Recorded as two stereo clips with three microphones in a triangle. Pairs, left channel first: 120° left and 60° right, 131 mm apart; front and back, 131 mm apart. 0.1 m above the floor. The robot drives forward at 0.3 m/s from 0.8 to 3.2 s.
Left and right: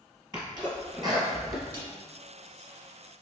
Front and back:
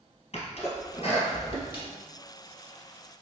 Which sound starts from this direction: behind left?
A snare drum, at 1.7 s.